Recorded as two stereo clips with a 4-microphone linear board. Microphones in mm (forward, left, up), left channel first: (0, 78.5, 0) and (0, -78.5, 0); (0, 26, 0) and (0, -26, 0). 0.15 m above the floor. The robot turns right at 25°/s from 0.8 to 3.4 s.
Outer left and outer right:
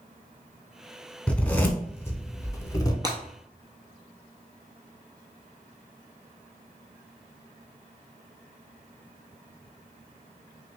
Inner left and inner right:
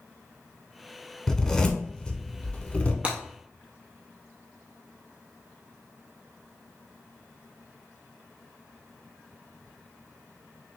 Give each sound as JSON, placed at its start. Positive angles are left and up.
{"t": 1.3, "sound": "a zipper", "side_deg": 5, "distance_m": 0.6}
{"t": 3.0, "sound": "breaking glass", "side_deg": -25, "distance_m": 1.0}